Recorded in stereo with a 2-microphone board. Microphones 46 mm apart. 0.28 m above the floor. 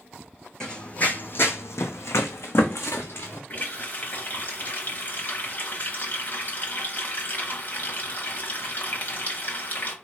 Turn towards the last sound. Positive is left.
turn(degrees=40)  # may be behind; listen again after turning